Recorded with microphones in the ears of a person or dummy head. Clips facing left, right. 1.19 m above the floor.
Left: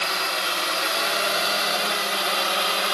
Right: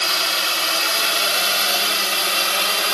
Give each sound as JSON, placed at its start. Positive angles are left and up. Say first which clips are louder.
{"t": 0.0, "sound": "a drone", "louder": "right 1 dB", "side_deg": -40}